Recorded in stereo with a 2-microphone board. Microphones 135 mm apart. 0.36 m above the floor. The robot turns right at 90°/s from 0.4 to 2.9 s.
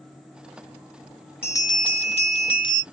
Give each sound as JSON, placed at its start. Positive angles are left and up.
{"t": 1.4, "sound": "a bell", "azimuth_deg": 20, "distance_m": 0.9}